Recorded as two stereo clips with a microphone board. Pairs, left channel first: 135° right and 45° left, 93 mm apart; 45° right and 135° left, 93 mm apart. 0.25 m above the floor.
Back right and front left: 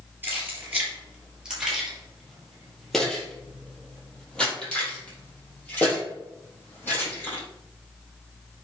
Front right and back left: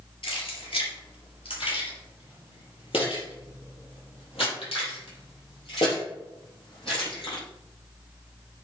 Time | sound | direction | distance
0.2 | keys jangling | 25° right | 3.5 m